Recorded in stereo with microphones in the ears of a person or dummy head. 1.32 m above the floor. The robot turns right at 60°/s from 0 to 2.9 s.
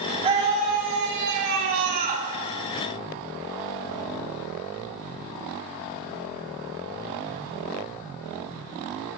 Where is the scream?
155° right, 3 m; by 2.3 s 30° right, 3 m.